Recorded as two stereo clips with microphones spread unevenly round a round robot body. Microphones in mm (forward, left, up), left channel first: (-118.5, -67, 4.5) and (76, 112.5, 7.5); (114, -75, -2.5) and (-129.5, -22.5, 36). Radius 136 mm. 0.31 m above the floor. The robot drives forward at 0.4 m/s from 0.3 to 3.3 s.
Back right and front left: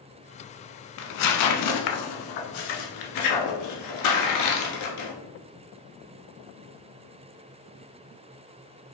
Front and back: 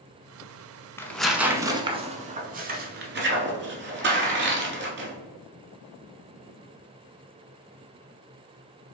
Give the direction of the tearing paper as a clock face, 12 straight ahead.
3 o'clock.